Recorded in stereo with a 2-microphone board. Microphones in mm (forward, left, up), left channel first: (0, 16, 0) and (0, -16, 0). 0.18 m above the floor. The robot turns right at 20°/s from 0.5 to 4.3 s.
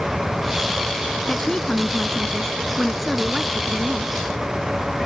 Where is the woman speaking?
140° left; by 4.1 s 160° right.